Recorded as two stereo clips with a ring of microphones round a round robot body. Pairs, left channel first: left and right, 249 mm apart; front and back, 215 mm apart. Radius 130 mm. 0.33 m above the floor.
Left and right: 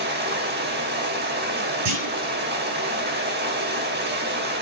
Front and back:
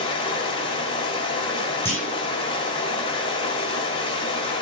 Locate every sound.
0.0 s running water: 60° right, 1.6 m
1.9 s a clunk: 80° right, 5.5 m